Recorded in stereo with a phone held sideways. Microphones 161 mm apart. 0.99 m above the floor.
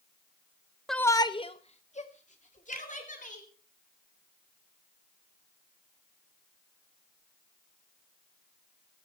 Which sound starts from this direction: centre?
A shout, at 0.9 s.